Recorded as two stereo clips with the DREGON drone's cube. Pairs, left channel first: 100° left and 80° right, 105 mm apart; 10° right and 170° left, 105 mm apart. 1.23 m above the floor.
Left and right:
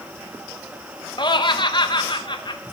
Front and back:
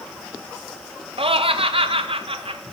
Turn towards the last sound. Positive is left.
turn(degrees=140)